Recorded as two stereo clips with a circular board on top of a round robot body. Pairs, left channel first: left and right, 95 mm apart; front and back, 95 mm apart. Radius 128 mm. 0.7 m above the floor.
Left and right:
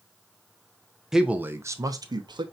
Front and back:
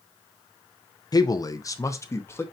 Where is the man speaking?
5° right, 0.7 m; by 2.4 s 60° right, 1.1 m.